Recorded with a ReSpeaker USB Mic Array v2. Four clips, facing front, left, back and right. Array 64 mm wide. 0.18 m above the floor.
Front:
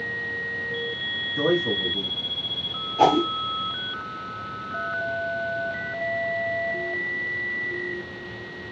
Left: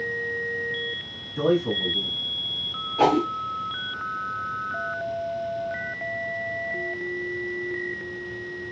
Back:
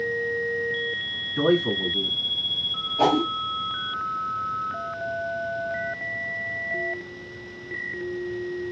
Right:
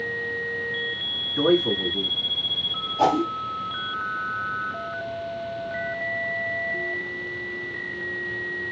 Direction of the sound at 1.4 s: 135° right.